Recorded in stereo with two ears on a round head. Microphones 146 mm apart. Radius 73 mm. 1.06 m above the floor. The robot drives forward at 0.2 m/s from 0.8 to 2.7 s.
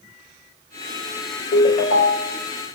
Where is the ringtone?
55° left (ahead or behind), 2 m.